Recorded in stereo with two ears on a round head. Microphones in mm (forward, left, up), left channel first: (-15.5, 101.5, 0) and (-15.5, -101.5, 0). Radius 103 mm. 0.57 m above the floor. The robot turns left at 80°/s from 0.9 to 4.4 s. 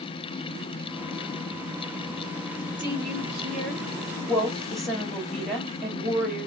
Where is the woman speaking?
55° right, 1.6 m; by 6.5 s straight behind, 1.6 m.